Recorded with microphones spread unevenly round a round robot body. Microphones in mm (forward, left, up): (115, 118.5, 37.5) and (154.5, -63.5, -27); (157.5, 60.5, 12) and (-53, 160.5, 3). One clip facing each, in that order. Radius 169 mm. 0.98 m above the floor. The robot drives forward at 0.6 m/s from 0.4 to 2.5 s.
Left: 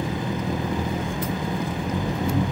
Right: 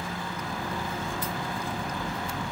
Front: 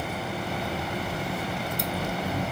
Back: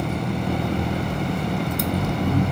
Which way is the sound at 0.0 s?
145° left.